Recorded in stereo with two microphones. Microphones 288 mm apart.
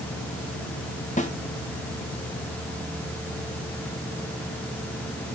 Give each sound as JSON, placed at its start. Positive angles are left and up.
{"t": 1.2, "sound": "a snare drum", "side_deg": 25, "distance_m": 1.6}